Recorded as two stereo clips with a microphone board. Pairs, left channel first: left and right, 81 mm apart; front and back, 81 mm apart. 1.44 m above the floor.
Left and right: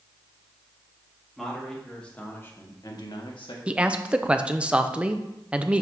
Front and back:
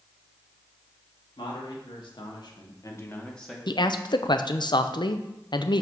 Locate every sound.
1.4 s a man speaking: straight ahead, 2.5 m; by 3.6 s 90° left, 1.4 m
3.7 s a man speaking: 15° right, 0.6 m